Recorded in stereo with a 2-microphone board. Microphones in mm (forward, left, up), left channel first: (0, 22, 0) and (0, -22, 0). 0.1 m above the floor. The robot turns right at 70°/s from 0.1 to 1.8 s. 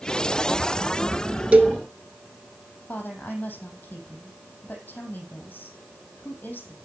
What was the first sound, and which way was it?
A cowbell, 30° right (ahead or behind).